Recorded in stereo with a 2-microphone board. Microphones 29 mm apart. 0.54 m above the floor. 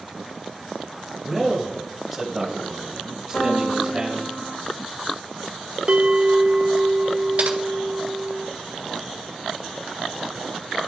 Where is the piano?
55° left (ahead or behind), 2.5 m.